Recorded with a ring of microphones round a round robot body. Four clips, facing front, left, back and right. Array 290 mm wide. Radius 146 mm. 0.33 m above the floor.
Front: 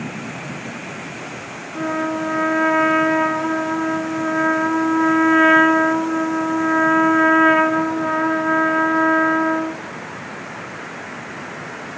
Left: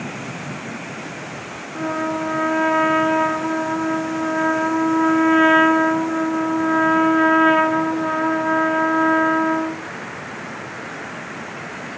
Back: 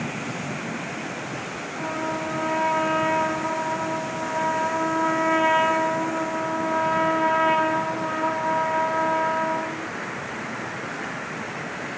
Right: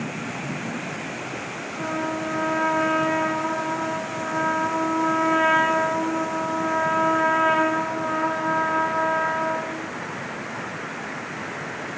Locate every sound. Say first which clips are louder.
1.8 s a trumpet: left 5 dB, front 7 dB; 25° left, 3.5 m